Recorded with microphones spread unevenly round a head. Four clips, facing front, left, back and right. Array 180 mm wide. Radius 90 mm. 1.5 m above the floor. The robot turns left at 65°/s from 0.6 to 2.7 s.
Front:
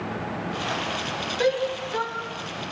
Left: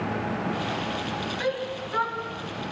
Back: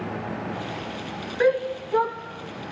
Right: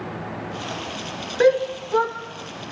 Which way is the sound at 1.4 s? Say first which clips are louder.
Right 15 dB, back 3 dB; 95° right.